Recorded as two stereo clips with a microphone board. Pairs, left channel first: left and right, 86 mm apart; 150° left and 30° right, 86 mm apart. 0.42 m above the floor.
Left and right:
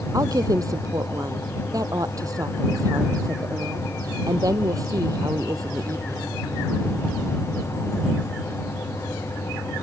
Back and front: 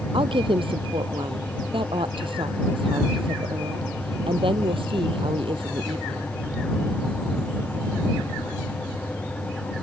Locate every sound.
0.1 s a woman speaking: 40° right